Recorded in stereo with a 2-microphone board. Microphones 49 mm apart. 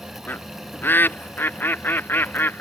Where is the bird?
40° left (ahead or behind).